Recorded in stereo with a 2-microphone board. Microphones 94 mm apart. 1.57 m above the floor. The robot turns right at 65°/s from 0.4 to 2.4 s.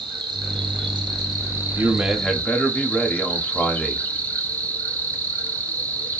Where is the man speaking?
30° right, 0.7 m; by 4.0 s 10° left, 0.7 m.